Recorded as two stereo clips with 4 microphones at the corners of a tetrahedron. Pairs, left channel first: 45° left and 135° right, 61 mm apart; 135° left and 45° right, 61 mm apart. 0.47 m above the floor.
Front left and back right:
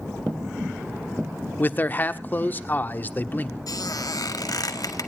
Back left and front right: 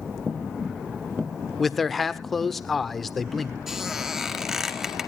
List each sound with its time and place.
1.6 s a man speaking: 50° left, 1.0 m
3.7 s a squeak: 40° left, 1.8 m